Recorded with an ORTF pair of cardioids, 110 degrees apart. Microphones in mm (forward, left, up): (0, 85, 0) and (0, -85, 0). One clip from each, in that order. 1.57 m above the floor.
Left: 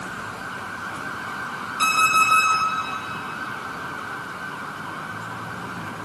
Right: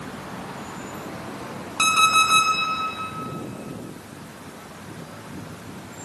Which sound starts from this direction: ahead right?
An alarm clock, at 1.8 s.